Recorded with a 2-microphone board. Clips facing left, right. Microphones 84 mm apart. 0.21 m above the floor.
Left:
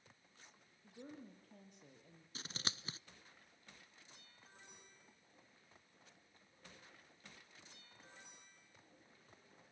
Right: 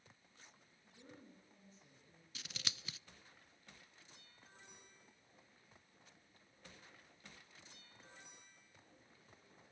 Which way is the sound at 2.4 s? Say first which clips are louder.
Left 4 dB; 35° left (ahead or behind).